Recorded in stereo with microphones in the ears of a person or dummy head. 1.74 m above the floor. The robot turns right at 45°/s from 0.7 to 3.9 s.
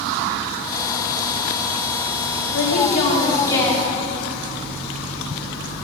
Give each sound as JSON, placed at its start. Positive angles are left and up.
{"t": 2.5, "sound": "a woman speaking", "azimuth_deg": 115, "distance_m": 2.0}